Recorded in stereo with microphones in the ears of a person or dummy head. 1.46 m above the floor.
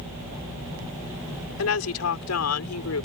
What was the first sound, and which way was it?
A woman speaking, 75° left (ahead or behind).